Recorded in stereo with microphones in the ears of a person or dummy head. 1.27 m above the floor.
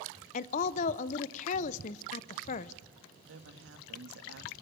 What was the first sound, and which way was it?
A woman speaking, 40° left (ahead or behind).